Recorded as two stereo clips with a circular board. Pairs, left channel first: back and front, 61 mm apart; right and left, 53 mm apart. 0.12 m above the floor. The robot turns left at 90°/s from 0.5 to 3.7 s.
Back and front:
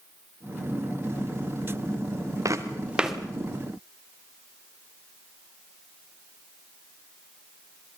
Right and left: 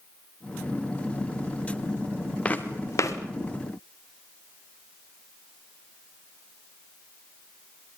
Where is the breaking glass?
No breaking glass in this recording.